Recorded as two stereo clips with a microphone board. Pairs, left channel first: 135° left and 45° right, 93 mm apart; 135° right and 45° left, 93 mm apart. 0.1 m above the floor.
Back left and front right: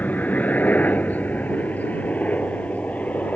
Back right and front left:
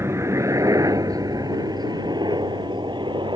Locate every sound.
0.0 s a helicopter: 80° left; by 3.4 s 60° left